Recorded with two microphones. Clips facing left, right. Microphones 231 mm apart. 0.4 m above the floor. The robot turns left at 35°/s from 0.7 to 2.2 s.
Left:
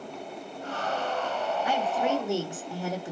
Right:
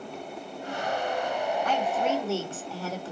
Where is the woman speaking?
10° left (ahead or behind), 0.8 m; by 3.1 s 15° left (ahead or behind), 0.8 m.